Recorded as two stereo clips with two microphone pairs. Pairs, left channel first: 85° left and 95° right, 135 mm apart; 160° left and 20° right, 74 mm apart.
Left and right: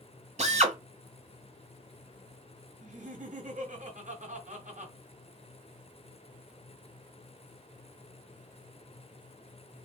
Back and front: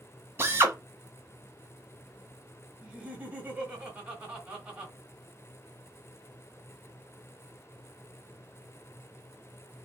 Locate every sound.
0.4 s a drill: 70° right, 1.2 m
2.8 s laughter: 90° right, 3 m